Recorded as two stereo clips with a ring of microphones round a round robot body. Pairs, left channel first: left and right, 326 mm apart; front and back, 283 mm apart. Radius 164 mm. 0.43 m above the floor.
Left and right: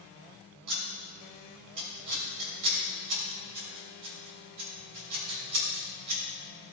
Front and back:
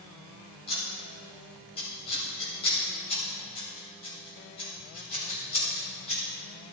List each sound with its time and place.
0.7 s scissors: 70° right, 2.5 m